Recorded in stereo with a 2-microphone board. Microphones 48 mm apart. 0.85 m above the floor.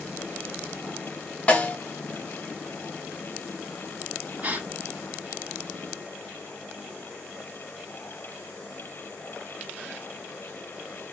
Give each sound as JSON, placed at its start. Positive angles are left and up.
{"t": 1.5, "sound": "a snare drum", "side_deg": 35, "distance_m": 0.9}
{"t": 4.4, "sound": "a gasp", "side_deg": -30, "distance_m": 1.5}